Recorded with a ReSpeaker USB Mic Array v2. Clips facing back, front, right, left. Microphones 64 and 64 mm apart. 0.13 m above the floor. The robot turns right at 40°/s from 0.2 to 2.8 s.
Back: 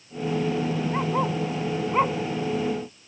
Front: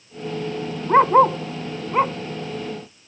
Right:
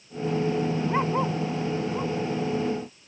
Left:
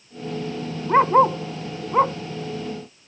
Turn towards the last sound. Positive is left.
turn(degrees=110)